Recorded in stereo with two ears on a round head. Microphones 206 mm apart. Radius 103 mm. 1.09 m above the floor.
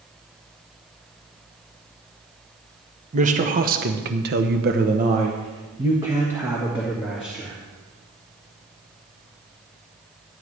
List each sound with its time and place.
3.1 s a man speaking: 35° right (ahead or behind), 1.3 m; by 7.5 s 5° right (ahead or behind), 2.5 m